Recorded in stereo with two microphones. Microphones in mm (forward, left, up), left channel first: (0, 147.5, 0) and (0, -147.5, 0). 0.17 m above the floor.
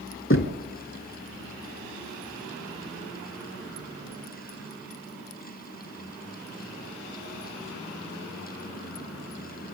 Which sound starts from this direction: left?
Knocking, at 0.3 s.